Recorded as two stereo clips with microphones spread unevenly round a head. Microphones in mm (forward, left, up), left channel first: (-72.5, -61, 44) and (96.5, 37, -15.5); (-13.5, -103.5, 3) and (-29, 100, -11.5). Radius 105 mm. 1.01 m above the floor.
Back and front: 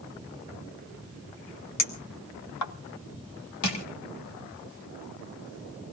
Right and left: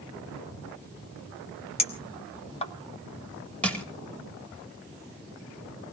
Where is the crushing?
170° right, 2.5 m.